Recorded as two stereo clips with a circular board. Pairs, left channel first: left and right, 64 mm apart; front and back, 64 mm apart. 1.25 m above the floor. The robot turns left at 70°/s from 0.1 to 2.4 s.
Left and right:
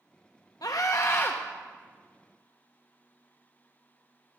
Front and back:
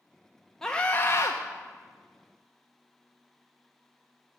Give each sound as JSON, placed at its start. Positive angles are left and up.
{"t": 0.6, "sound": "a scream", "azimuth_deg": 80, "distance_m": 1.0}